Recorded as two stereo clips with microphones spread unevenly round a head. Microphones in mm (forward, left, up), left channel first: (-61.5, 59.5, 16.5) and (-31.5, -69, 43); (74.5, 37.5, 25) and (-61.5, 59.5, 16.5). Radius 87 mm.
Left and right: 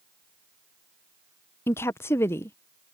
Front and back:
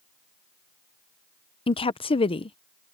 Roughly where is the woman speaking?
Ahead left.